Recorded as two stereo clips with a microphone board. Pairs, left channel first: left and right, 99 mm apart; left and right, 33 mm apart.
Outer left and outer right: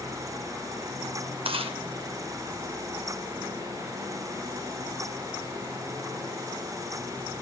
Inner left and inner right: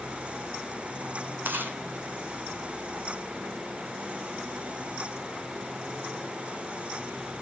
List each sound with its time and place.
1.4 s chewing: 70° right (ahead or behind), 2 m